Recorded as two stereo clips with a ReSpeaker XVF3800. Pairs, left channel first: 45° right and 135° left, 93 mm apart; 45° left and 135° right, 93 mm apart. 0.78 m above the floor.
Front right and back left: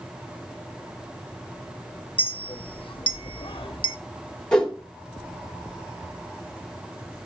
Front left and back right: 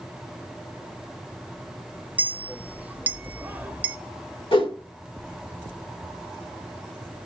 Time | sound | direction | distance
2.2 | a clink | 65° right | 0.6 m
4.5 | a whoosh | 35° left | 1.8 m